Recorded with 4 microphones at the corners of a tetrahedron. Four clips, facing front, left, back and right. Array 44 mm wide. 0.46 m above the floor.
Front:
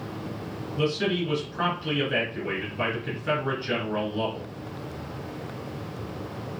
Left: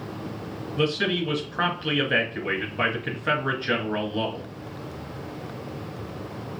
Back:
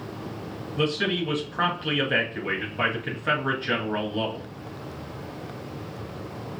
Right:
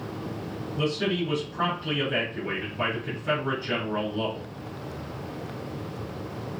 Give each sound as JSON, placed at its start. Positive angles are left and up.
{"t": 0.8, "sound": "a man speaking", "azimuth_deg": 125, "distance_m": 2.0}